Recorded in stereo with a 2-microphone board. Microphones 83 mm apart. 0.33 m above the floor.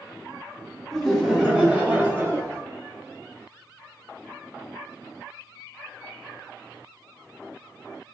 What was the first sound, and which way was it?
Laughter, 5° left (ahead or behind).